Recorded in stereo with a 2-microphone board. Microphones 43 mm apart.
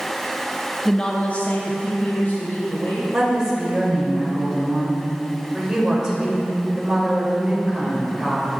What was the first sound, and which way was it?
A woman speaking, 5° left (ahead or behind).